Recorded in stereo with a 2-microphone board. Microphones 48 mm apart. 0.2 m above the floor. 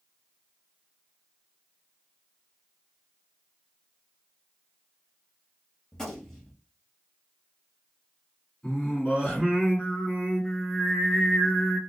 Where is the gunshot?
10° left (ahead or behind), 1.2 m.